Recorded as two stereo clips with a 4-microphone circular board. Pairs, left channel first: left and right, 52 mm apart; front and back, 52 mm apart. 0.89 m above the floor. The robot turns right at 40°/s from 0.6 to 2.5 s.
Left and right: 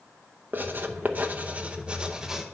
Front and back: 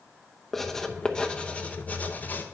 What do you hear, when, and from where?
0.5 s writing: 85° right, 0.6 m; by 2.4 s 10° right, 0.6 m